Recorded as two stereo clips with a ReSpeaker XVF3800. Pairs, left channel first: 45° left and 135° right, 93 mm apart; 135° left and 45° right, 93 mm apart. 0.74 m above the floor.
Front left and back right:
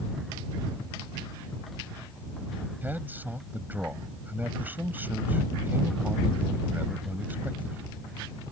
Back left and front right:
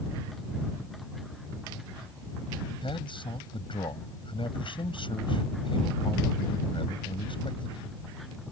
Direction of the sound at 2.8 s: 155° left.